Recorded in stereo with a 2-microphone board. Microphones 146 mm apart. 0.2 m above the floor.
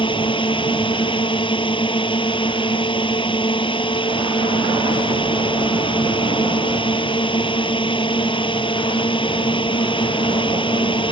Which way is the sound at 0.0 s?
35° left (ahead or behind).